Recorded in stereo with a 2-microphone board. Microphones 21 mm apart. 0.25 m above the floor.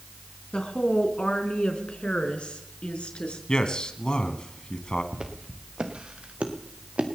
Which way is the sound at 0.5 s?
55° left (ahead or behind).